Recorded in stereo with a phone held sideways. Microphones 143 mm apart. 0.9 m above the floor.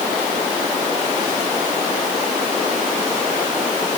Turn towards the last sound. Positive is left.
No sound to turn to.